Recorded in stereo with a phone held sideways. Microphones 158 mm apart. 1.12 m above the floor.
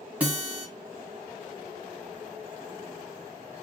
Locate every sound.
0.2 s a guitar: 10° right (ahead or behind), 1.1 m